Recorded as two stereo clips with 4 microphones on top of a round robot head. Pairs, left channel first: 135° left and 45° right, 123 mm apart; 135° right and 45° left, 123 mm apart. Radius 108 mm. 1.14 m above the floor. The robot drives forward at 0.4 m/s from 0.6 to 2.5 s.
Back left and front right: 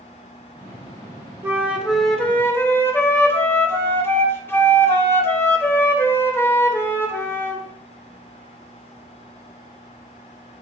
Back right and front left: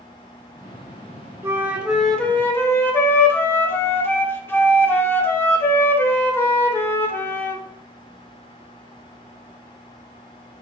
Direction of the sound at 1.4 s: Straight ahead.